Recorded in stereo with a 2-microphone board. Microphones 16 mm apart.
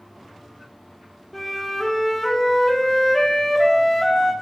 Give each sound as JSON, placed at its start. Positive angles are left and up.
{"t": 1.3, "sound": "a flute", "side_deg": 5, "distance_m": 1.2}